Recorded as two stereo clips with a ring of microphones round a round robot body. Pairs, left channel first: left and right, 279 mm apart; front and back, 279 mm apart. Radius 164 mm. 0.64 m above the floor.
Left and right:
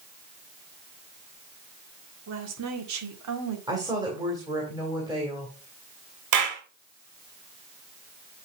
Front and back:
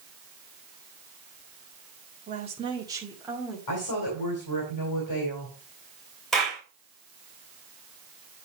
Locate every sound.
2.3 s a woman speaking: 120° right, 1.8 m; by 3.6 s 90° right, 2 m
3.7 s a woman speaking: 15° right, 2.5 m
6.3 s a clap: 90° right, 2.0 m